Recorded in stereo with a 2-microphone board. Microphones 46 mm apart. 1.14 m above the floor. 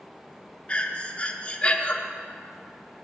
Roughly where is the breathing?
Left.